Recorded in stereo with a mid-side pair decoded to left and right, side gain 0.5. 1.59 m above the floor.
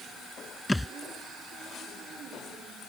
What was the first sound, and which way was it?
A thud, 5° left.